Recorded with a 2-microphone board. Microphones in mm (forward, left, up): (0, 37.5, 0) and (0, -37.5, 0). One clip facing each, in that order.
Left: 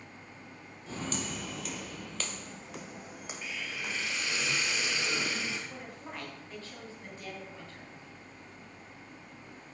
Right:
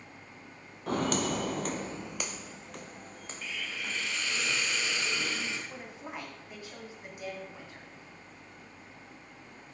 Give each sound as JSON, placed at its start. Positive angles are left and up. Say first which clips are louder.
{"t": 0.9, "sound": "footsteps", "louder": "right 8 dB", "side_deg": -65, "distance_m": 0.7}
{"t": 3.4, "sound": "a hiss", "louder": "right 1 dB", "side_deg": 15, "distance_m": 2.0}
{"t": 5.7, "sound": "a woman speaking", "louder": "right 1 dB", "side_deg": -15, "distance_m": 3.0}